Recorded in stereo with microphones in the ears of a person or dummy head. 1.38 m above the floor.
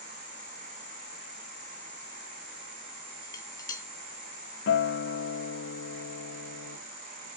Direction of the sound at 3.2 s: 25° left (ahead or behind).